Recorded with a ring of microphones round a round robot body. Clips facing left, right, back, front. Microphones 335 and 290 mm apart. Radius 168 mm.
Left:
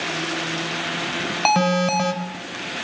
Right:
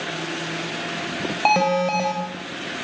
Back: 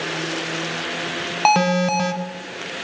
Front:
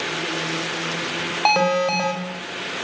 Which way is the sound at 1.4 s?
140° left.